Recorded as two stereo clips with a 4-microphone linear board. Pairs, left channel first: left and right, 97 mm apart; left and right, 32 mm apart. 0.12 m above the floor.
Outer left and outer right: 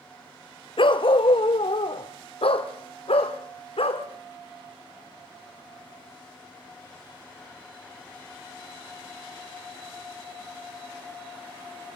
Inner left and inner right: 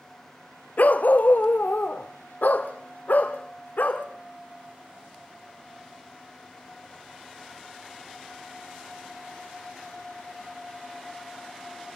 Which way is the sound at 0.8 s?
65° left (ahead or behind).